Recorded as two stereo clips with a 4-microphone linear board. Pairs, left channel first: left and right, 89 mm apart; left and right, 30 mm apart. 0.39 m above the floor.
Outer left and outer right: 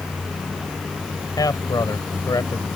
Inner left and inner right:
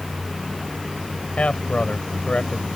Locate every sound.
1.4 s a man speaking: 50° left (ahead or behind)